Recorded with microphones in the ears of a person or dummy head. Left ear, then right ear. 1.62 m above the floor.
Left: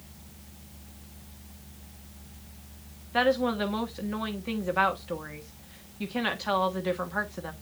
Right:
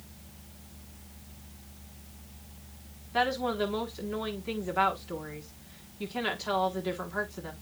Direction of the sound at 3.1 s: 15° left (ahead or behind).